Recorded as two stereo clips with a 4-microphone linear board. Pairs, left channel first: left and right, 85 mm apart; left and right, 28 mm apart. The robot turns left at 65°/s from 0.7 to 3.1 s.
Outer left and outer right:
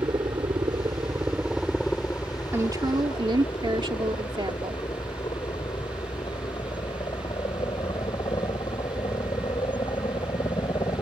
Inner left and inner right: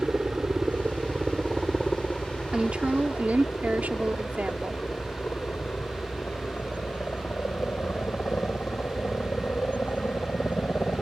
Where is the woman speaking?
30° right; by 4.8 s 70° right.